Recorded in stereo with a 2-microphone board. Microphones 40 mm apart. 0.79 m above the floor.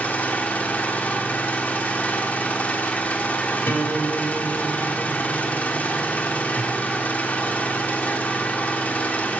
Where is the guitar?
75° left (ahead or behind), 1.7 m.